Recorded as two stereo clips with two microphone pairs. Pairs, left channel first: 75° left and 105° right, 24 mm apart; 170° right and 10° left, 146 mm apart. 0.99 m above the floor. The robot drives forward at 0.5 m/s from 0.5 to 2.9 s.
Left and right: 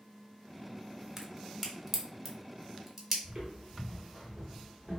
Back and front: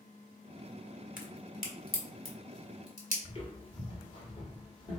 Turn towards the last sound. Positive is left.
turn(degrees=150)